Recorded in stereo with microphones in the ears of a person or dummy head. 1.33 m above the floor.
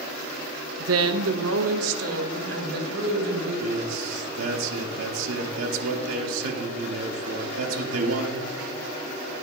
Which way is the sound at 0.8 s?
80° right.